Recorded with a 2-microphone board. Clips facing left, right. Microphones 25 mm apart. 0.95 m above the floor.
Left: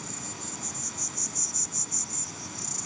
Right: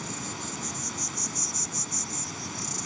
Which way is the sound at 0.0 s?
20° right (ahead or behind).